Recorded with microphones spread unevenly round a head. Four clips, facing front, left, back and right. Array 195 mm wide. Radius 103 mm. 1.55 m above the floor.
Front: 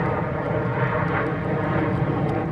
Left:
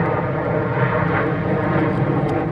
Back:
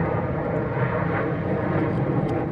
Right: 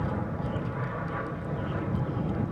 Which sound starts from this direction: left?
An aircraft, at 0.0 s.